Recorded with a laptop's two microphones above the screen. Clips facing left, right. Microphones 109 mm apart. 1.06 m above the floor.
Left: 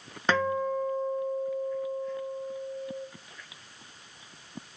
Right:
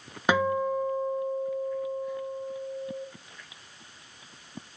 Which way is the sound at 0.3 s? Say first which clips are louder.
Right 2 dB; 10° right (ahead or behind).